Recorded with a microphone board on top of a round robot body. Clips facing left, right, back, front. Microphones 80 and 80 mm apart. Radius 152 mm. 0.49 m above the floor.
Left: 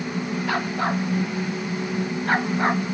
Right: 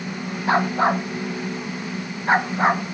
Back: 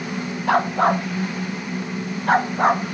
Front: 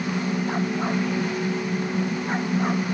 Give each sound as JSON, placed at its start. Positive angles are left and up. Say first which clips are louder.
{"t": 0.5, "sound": "a dog barking", "louder": "right 8 dB, back 7 dB", "azimuth_deg": -155}